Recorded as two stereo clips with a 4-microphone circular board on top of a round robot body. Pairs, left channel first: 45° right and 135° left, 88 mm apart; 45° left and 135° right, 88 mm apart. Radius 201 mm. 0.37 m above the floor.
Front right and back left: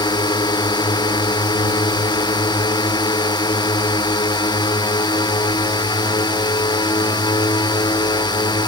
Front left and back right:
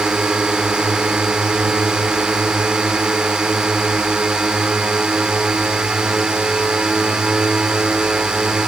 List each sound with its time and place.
0.0 s a drone: 55° right